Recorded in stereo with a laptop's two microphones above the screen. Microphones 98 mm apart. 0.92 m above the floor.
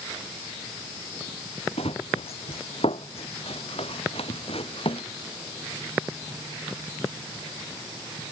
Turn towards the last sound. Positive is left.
turn(degrees=75)  # may be behind; listen again after turning